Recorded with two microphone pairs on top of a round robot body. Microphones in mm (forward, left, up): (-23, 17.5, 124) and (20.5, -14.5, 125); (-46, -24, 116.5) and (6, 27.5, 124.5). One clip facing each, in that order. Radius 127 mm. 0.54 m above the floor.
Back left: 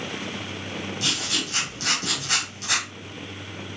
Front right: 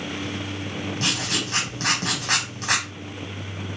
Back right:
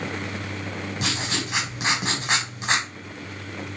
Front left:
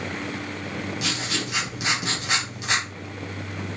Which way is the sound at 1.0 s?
75° right.